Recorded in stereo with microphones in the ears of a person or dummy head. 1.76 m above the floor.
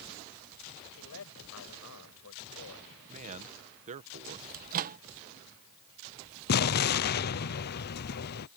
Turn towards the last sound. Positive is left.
turn(degrees=55)  # may be behind; listen again after turning